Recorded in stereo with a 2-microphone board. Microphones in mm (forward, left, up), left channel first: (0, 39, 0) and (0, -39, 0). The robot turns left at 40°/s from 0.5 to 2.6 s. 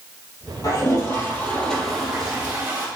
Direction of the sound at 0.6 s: 50° left.